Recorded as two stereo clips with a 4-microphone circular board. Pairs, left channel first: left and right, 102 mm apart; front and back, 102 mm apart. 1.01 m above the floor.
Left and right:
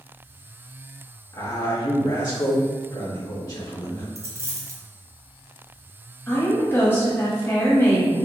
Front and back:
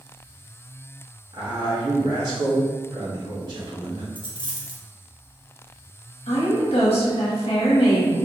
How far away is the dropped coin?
About 0.7 m.